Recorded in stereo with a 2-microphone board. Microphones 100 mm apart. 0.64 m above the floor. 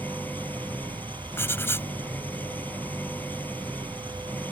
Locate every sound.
0.0 s an engine running: 15° left (ahead or behind)
1.4 s writing: 25° left (ahead or behind)